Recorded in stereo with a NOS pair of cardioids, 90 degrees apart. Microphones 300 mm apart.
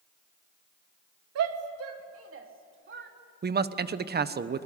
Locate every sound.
1.4 s a shout: 60° right, 2.5 m; by 3.1 s 40° right, 3.5 m
3.4 s a man speaking: 35° right, 1.1 m